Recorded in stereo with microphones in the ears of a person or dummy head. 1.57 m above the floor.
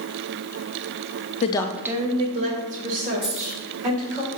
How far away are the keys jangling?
About 2 m.